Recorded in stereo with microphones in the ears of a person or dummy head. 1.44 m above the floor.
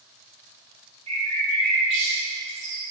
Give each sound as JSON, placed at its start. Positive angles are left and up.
{"t": 1.1, "sound": "a bird", "side_deg": -30, "distance_m": 1.7}